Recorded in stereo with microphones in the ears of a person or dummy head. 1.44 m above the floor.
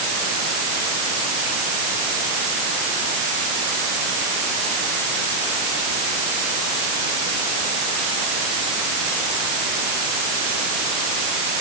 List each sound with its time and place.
Only background noise.